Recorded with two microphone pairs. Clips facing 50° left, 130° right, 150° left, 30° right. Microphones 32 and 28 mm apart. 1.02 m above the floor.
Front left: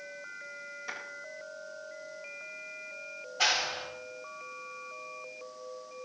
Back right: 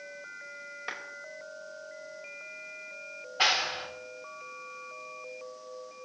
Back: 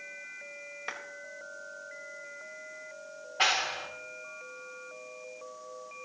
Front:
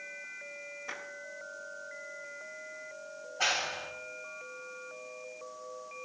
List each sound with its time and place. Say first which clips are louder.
0.9 s a clap: back right 2 dB, back 3 dB; straight behind, 4.5 m
3.4 s a clap: back right 2 dB, back 3 dB; 170° left, 3 m